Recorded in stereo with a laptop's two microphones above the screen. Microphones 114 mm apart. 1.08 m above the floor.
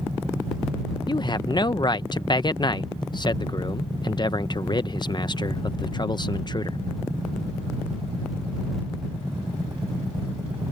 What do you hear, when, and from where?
1.1 s a man speaking: 40° left (ahead or behind)